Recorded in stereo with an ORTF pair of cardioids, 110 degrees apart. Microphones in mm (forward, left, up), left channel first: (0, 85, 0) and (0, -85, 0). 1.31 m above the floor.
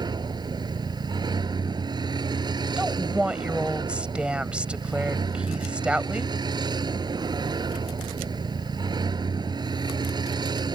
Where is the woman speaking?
5° right.